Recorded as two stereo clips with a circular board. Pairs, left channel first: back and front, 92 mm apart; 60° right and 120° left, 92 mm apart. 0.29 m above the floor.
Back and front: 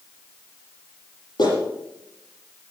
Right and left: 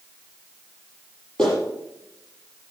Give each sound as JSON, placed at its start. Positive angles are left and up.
{"t": 1.4, "sound": "a clap", "azimuth_deg": -145, "distance_m": 8.5}